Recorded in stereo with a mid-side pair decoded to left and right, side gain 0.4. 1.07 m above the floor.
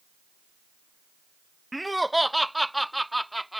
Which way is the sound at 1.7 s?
5° right.